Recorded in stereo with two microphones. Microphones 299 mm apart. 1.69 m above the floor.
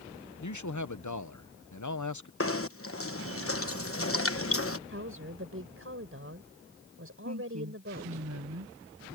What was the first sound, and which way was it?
A man speaking, 75° left (ahead or behind).